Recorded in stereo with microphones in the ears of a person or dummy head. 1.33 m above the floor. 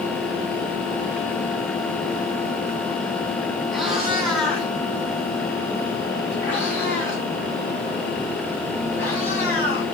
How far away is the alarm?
I don't hear an alarm.